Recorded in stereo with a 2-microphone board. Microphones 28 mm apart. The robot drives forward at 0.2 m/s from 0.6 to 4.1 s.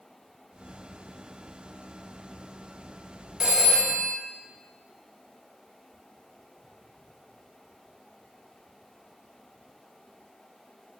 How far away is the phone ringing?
About 0.6 m.